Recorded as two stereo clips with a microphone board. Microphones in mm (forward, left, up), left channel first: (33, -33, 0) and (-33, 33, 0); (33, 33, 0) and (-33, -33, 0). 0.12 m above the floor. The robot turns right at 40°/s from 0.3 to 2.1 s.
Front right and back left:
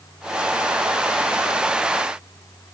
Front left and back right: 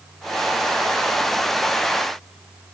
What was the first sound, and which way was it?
Only background noise.